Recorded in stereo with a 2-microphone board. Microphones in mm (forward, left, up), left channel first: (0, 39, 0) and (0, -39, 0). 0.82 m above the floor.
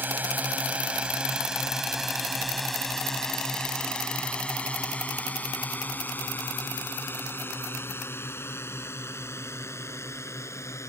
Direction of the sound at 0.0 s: 20° right (ahead or behind).